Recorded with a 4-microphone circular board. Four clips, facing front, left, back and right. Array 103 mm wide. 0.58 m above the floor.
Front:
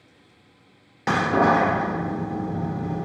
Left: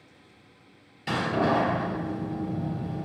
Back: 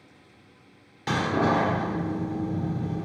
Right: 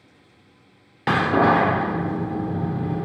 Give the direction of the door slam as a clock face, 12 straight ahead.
2 o'clock.